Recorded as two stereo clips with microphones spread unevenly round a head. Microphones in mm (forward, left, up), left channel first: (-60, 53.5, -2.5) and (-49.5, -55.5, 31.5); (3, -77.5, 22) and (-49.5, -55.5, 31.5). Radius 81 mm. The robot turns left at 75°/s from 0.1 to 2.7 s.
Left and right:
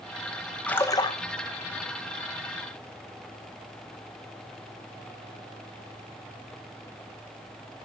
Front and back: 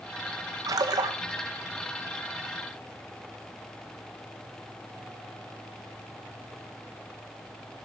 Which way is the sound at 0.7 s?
175° left.